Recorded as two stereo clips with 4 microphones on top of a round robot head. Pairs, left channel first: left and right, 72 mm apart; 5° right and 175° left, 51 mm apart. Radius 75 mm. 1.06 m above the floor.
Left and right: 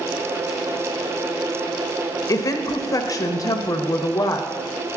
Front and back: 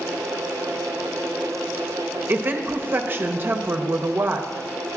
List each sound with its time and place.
2.3 s a woman speaking: 130° left, 0.9 m